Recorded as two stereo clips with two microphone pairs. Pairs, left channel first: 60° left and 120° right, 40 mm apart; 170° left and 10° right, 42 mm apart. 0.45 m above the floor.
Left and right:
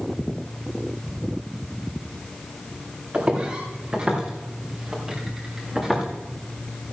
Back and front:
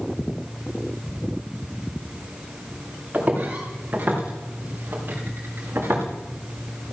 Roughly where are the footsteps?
Ahead right.